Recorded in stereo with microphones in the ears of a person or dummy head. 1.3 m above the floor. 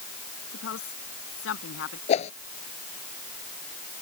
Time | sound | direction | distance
0.5 | a woman speaking | 75° left (ahead or behind) | ?
2.1 | a whoosh | 40° left (ahead or behind) | ?